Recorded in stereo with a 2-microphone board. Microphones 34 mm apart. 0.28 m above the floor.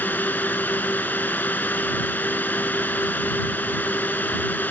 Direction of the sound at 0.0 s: 70° left (ahead or behind).